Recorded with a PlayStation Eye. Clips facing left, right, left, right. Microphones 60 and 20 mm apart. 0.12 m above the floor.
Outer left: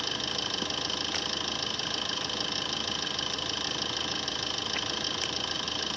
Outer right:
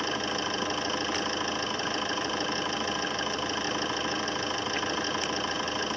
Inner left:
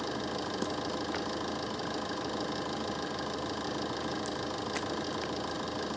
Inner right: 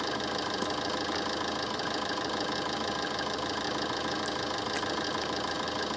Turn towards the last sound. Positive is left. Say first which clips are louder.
# outer right 5 dB, inner right 3 dB
turn(degrees=-30)  # may be behind; listen again after turning